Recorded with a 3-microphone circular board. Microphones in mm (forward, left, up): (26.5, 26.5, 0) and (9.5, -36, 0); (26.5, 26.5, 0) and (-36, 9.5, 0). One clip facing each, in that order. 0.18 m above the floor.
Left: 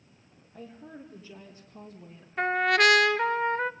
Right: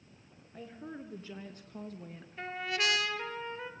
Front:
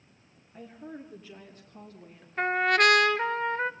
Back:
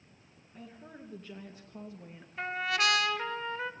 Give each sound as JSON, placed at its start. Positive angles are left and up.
{"t": 0.5, "sound": "a woman speaking", "azimuth_deg": -55, "distance_m": 3.5}
{"t": 2.4, "sound": "a trumpet", "azimuth_deg": 55, "distance_m": 0.8}